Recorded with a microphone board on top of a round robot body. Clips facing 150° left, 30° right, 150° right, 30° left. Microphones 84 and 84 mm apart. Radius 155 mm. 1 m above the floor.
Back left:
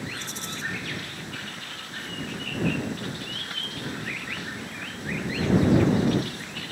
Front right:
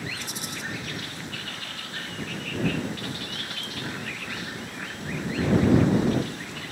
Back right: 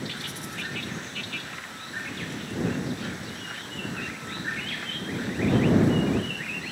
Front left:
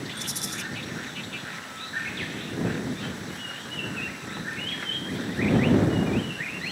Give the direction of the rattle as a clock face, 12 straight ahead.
10 o'clock.